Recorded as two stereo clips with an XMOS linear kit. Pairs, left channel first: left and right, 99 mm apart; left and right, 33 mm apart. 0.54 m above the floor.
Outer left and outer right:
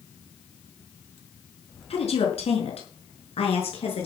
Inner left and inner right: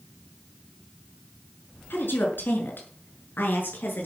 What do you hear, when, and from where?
1.9 s a woman speaking: 85° left, 5.5 m; by 4.1 s 80° left, 7 m